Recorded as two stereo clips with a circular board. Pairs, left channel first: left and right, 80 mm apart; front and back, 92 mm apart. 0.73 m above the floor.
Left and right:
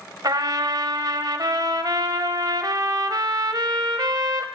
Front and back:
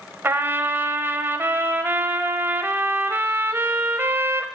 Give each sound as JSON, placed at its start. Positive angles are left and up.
{"t": 0.2, "sound": "a trumpet", "azimuth_deg": -115, "distance_m": 0.9}